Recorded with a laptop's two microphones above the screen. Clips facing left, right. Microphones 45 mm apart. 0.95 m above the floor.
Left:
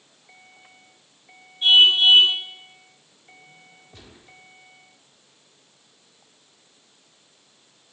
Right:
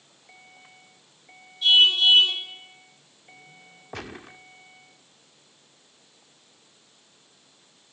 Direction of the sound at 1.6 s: 35° left (ahead or behind).